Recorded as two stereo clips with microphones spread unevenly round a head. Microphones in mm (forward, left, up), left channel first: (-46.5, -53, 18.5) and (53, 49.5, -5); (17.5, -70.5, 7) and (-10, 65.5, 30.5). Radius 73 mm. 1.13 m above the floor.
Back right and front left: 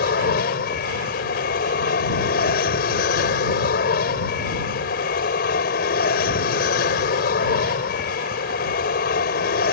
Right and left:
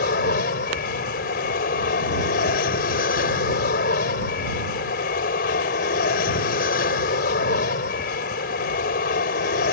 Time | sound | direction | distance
0.0 | an aircraft | 105° right | ?